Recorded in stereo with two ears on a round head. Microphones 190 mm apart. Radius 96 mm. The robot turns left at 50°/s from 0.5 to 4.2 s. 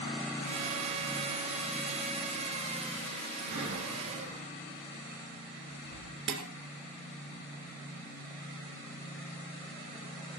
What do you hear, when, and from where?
3.5 s breathing: 70° right (ahead or behind), 3.5 m
6.3 s dishes clattering: 60° right (ahead or behind), 2.0 m